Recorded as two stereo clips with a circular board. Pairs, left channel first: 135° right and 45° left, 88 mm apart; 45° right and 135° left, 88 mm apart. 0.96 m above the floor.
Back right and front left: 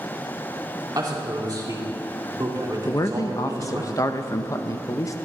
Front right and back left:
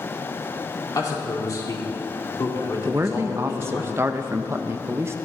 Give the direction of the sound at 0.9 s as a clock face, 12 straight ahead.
12 o'clock.